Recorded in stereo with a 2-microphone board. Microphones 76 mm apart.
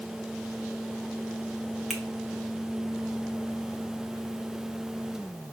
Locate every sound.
1.9 s a finger snap: centre (ahead or behind), 0.7 m